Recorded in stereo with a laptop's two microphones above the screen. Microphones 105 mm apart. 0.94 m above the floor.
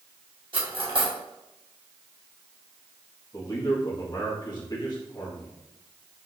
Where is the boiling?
No boiling in this recording.